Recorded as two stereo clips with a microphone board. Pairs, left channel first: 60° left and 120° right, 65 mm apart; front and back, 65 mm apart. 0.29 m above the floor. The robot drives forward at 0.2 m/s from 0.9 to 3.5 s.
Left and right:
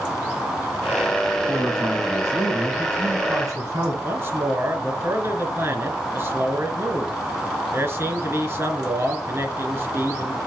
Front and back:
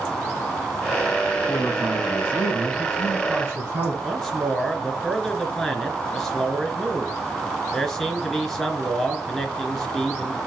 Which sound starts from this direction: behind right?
A man speaking, at 1.5 s.